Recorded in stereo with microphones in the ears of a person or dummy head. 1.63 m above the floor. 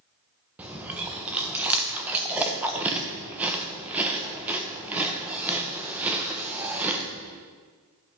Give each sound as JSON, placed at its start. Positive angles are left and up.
{"t": 0.6, "sound": "chewing", "side_deg": -5, "distance_m": 0.9}